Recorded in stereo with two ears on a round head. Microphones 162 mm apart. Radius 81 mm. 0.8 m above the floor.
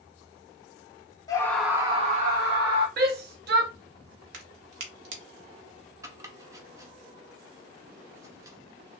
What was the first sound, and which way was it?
A scream, 20° left (ahead or behind).